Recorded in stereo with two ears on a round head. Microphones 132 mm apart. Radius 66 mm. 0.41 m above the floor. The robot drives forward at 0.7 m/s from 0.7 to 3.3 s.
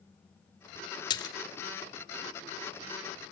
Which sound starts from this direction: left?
A splash, at 1.1 s.